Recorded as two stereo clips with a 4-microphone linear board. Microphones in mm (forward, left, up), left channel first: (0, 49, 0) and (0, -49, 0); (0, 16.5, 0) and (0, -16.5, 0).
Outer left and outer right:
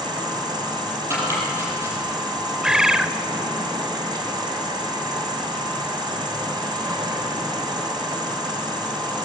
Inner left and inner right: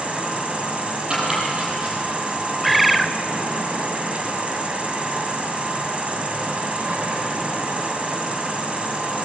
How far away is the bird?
About 0.7 m.